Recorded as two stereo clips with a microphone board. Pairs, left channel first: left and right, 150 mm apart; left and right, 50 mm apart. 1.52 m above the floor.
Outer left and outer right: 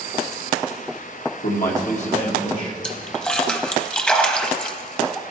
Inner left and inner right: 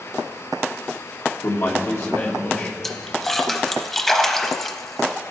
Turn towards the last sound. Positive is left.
turn(degrees=5)  # may be behind; listen again after turning